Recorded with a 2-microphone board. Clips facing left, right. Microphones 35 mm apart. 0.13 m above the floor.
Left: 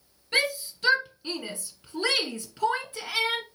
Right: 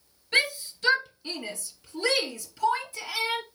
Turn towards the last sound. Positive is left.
turn(degrees=45)  # may be behind; listen again after turning